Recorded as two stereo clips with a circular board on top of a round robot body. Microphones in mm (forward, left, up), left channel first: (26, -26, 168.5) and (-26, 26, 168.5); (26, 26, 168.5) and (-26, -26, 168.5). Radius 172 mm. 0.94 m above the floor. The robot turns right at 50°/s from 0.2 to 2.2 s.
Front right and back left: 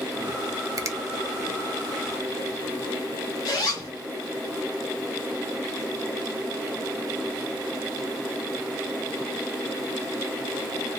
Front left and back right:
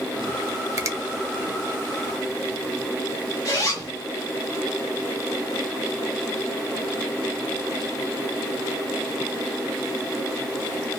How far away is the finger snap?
About 0.6 m.